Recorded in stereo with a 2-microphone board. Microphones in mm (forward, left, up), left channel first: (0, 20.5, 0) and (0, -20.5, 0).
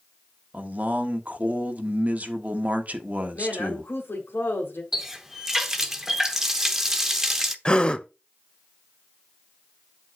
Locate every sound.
0.5 s a man speaking: 40° right (ahead or behind), 1.2 m
3.3 s a woman speaking: 70° left (ahead or behind), 2 m
4.9 s a running tap: 10° right (ahead or behind), 0.9 m
7.7 s a gasp: 25° left (ahead or behind), 0.6 m